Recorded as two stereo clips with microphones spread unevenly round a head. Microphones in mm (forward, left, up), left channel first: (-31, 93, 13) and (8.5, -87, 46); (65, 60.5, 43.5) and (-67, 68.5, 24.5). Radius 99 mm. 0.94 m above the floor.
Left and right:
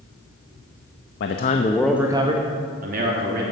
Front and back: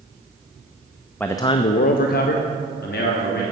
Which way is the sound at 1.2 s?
75° left.